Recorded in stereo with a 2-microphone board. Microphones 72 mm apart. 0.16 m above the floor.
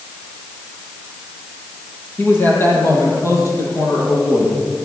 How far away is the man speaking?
About 5 m.